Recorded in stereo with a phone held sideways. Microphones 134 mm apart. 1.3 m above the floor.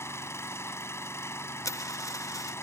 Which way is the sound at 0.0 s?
20° left (ahead or behind).